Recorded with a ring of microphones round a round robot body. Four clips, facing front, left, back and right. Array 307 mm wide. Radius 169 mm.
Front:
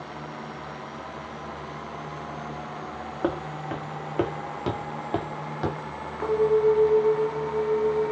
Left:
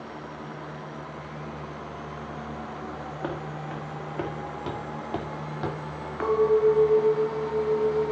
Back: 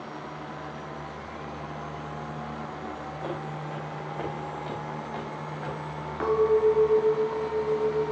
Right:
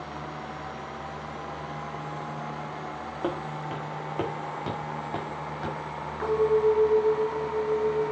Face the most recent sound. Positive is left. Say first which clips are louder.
# left 2 dB, front 1 dB
turn(degrees=125)